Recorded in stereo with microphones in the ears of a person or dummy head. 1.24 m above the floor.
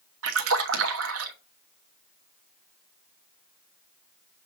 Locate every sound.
0.2 s a splash: 80° right, 1.1 m